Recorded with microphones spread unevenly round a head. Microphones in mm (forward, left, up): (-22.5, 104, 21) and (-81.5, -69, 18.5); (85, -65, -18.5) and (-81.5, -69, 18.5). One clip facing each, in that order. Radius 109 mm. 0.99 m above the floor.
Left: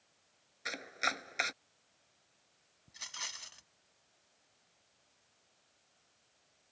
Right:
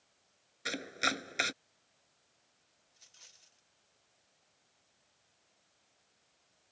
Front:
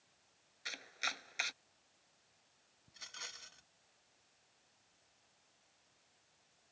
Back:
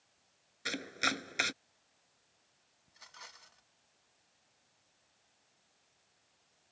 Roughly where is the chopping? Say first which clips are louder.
Right 4 dB, back 12 dB; behind.